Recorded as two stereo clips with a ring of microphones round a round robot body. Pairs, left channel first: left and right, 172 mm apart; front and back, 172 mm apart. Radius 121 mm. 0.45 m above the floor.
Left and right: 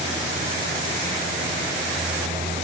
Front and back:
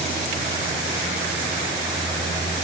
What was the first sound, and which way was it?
Only background noise.